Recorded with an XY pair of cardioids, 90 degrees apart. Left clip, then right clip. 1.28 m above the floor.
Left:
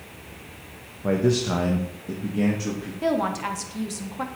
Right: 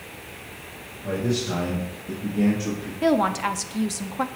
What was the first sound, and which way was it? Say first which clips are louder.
A man speaking: left 4 dB; 70° left.